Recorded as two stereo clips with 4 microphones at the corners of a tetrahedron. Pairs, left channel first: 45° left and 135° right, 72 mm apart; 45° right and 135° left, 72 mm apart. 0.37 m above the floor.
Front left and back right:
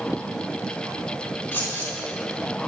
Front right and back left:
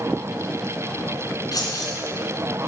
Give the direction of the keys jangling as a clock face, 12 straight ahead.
1 o'clock.